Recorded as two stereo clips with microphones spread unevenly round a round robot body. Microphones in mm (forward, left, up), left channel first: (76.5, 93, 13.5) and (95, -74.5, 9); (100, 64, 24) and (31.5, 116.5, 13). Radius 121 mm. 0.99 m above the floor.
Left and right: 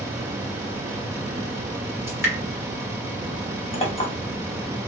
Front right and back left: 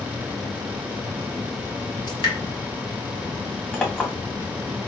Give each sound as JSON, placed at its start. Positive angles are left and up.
{"t": 2.1, "sound": "dripping", "azimuth_deg": -5, "distance_m": 1.9}
{"t": 3.7, "sound": "a clink", "azimuth_deg": 40, "distance_m": 1.9}